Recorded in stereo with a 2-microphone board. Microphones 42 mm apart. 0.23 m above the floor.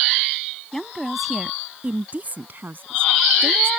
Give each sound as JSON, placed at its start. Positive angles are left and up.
{"t": 0.7, "sound": "a woman speaking", "side_deg": 10}